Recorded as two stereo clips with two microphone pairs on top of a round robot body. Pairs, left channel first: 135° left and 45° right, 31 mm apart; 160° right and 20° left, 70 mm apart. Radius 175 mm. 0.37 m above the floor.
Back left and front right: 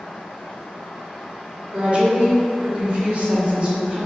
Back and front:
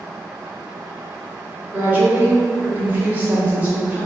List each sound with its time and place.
1.7 s a woman speaking: 25° right, 1.5 m